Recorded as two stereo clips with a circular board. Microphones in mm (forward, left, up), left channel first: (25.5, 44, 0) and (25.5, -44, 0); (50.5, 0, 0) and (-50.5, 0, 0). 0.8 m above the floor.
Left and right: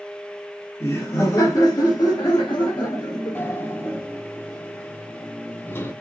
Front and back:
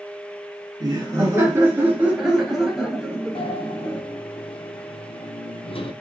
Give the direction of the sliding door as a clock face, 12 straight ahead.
11 o'clock.